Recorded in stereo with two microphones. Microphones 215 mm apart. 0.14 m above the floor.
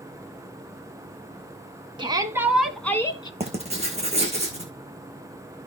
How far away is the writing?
About 1.9 m.